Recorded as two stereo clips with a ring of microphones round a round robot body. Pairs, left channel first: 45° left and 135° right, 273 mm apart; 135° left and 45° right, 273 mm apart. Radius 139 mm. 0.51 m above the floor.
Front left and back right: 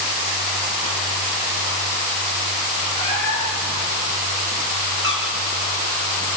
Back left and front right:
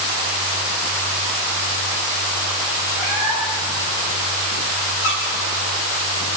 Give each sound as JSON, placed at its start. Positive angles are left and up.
{"t": 3.0, "sound": "a cat meowing", "azimuth_deg": 115, "distance_m": 8.5}
{"t": 5.0, "sound": "a squeak", "azimuth_deg": 120, "distance_m": 5.5}